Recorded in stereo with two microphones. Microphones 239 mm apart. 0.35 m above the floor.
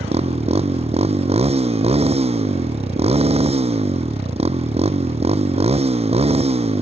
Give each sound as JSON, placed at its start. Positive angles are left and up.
{"t": 0.0, "sound": "a motorcycle", "side_deg": -25}